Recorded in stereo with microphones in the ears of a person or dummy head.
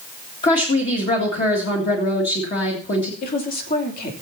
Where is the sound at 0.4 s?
40° left (ahead or behind), 2.5 m.